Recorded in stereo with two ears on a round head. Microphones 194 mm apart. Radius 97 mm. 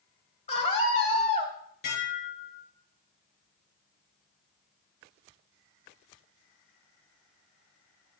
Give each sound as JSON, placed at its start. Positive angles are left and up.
{"t": 0.5, "sound": "a scream", "side_deg": 30, "distance_m": 2.5}
{"t": 1.8, "sound": "dishes clattering", "side_deg": 45, "distance_m": 5.0}